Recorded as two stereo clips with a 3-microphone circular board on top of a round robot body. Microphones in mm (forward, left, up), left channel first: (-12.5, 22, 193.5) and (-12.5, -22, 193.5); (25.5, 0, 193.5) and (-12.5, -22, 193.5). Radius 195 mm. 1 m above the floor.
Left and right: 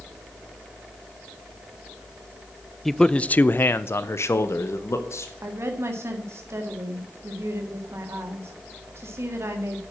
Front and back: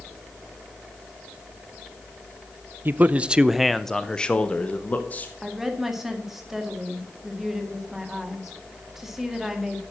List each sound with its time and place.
2.9 s a man speaking: 175° left, 0.6 m; by 5.3 s 80° left, 1.4 m
5.4 s a woman speaking: 65° right, 2 m